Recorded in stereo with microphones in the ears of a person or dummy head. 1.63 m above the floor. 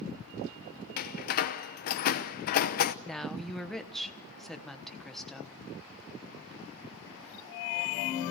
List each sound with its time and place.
1.0 s a door slam: 50° left (ahead or behind), 0.8 m
3.0 s a woman speaking: centre (ahead or behind), 1.2 m